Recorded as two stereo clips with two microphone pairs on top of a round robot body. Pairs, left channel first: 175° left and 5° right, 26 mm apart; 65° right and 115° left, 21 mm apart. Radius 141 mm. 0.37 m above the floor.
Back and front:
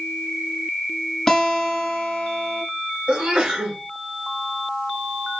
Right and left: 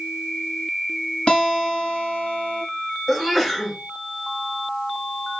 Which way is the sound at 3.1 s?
20° left.